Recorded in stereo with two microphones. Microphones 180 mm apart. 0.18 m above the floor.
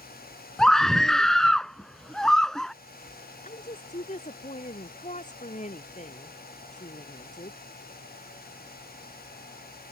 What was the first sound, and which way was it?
A scream, 5° left (ahead or behind).